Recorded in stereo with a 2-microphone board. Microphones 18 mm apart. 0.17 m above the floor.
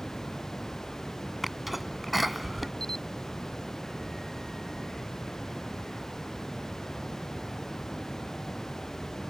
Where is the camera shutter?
30° left (ahead or behind).